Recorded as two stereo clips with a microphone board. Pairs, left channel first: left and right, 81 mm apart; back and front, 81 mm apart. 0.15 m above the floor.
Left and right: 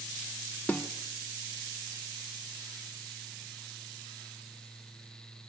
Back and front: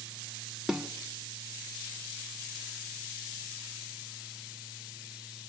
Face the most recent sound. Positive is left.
turn(degrees=75)